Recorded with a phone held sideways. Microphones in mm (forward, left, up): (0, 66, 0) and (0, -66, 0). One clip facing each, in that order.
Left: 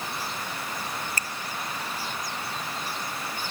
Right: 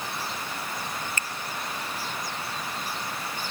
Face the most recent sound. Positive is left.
turn(degrees=40)  # may be behind; listen again after turning